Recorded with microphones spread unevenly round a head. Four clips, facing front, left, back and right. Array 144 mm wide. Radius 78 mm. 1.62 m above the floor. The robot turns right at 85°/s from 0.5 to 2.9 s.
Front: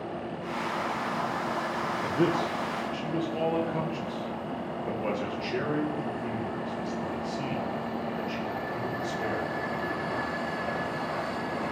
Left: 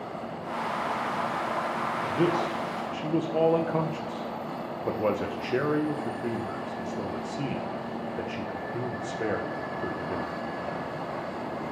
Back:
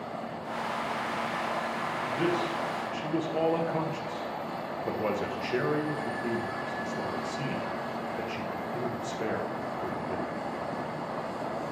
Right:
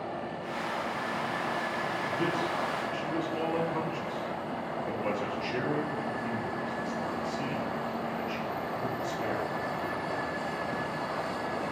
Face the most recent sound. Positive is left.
turn(degrees=105)